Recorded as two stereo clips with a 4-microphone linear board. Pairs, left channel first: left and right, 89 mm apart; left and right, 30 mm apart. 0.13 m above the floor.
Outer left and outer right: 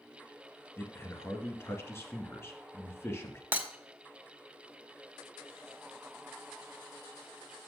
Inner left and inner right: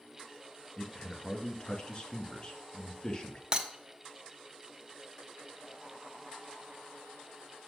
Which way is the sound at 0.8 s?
30° left (ahead or behind).